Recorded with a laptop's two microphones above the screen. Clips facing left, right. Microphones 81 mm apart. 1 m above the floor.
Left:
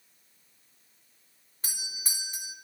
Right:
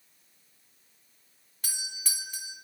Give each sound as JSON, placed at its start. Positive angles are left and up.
{"t": 1.6, "sound": "a doorbell", "side_deg": 30, "distance_m": 0.8}